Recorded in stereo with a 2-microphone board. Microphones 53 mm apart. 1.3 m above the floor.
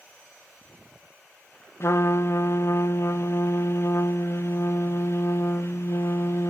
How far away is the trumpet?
About 0.6 m.